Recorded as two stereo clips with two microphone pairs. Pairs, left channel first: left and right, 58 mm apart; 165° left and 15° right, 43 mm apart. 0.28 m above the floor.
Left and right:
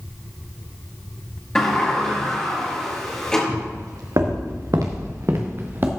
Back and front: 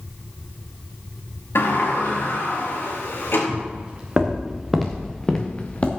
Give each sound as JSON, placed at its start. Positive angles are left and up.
{"t": 1.6, "sound": "a sliding door", "azimuth_deg": 170, "distance_m": 5.0}
{"t": 3.5, "sound": "footsteps", "azimuth_deg": -80, "distance_m": 3.0}